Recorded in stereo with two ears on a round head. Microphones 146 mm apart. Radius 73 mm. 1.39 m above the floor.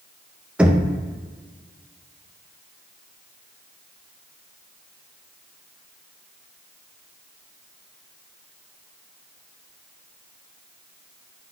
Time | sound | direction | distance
0.6 | knocking | 5° right (ahead or behind) | 0.7 m